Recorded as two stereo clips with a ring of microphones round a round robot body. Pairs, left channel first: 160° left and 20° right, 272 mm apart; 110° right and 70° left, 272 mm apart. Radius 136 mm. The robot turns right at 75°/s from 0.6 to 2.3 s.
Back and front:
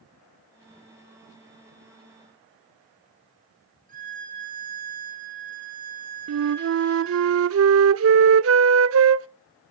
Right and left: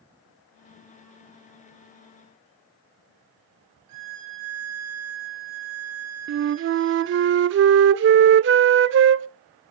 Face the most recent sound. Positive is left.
turn(degrees=20)